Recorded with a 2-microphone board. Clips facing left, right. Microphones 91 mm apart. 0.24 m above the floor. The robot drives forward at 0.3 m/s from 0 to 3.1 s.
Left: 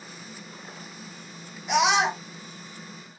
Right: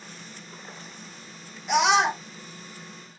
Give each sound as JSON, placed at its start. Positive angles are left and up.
{"t": 1.7, "sound": "a scream", "side_deg": 0, "distance_m": 1.4}